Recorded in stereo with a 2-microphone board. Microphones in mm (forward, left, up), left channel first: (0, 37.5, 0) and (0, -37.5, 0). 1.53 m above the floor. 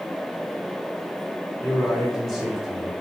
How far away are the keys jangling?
I don't hear keys jangling.